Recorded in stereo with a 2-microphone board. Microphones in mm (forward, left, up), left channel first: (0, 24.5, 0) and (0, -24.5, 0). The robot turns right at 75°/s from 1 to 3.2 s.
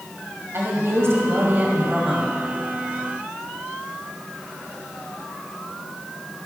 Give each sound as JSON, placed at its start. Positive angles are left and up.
{"t": 0.5, "sound": "a woman speaking", "azimuth_deg": -90, "distance_m": 1.9}